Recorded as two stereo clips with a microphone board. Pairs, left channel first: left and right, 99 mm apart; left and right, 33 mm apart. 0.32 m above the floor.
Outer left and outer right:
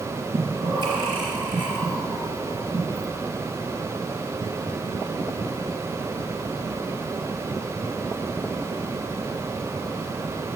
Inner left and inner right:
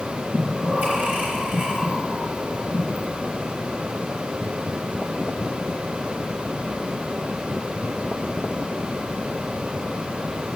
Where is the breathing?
55° right (ahead or behind), 3.5 m.